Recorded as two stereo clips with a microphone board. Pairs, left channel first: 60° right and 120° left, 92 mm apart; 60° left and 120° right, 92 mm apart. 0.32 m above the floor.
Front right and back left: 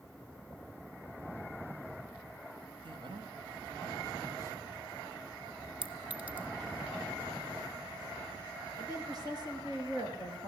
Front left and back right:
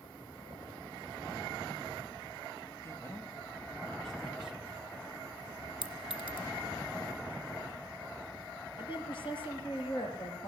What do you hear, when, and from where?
2.8 s a man speaking: 115° left, 2.5 m; by 4.8 s 175° left, 1.9 m
5.8 s a clink: 45° left, 1.9 m
8.8 s a woman speaking: 75° left, 5.5 m